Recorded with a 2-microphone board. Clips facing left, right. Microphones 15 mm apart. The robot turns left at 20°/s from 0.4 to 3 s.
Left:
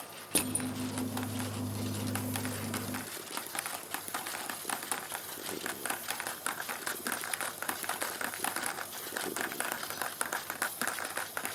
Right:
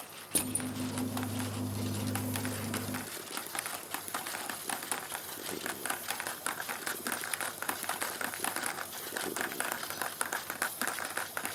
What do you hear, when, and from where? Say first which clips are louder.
0.3 s crushing: left 2 dB; 35° left (ahead or behind), 1.5 m; by 0.7 s 40° left (ahead or behind), 1.5 m